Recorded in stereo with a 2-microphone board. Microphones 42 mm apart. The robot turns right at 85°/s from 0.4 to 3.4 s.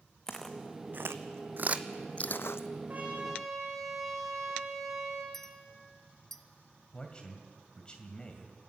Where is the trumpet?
40° right, 5 m; by 5.2 s straight ahead, 5 m.